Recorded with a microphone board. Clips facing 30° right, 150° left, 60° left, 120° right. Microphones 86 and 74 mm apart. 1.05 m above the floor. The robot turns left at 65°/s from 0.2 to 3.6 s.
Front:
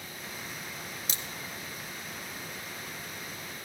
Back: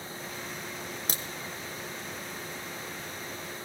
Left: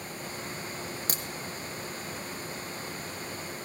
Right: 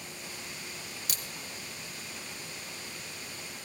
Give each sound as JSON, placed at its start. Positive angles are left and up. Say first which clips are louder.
{"t": 1.1, "sound": "a crack", "louder": "back 4 dB, left 5 dB", "azimuth_deg": 110, "distance_m": 1.3}